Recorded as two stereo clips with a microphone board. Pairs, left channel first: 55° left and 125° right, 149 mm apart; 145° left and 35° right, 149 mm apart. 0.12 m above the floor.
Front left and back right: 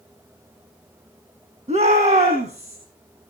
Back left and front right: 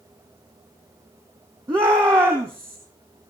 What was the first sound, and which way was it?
A shout, 100° right.